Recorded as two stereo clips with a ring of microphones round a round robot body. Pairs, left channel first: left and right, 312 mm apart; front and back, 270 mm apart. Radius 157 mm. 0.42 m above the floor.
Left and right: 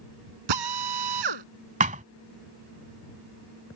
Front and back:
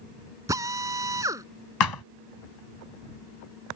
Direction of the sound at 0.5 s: 100° right.